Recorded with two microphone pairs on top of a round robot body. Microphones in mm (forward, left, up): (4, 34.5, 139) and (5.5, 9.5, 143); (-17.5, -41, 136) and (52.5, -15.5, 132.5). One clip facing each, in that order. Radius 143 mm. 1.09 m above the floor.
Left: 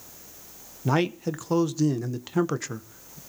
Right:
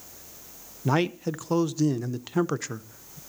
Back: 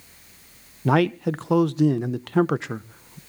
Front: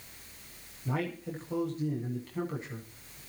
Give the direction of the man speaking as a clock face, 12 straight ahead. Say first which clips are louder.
Even, back 14 dB; 6 o'clock.